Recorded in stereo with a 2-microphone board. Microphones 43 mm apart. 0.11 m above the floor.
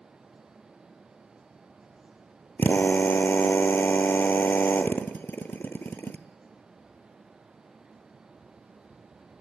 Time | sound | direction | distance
2.6 | a drill | 50° left (ahead or behind) | 1.2 m